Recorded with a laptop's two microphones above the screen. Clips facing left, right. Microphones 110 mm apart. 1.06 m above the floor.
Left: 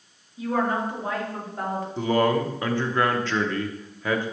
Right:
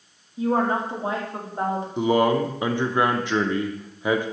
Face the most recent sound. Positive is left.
turn(degrees=-15)  # may be behind; listen again after turning